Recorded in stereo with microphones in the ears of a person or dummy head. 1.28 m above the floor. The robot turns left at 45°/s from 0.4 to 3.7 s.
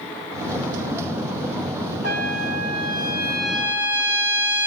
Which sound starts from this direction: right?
A trumpet, at 2.0 s.